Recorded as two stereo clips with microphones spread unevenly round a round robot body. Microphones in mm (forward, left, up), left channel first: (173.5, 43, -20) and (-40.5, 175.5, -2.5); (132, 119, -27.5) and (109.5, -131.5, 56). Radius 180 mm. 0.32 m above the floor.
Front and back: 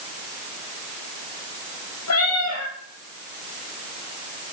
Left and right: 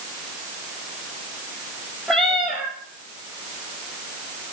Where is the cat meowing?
5° right, 2 m.